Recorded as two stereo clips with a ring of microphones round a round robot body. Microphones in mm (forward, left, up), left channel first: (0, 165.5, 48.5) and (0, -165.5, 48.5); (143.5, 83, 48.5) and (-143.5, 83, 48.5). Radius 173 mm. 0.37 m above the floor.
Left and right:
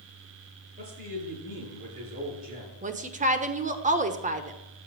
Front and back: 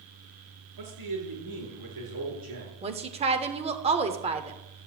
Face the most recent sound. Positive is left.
turn(degrees=-130)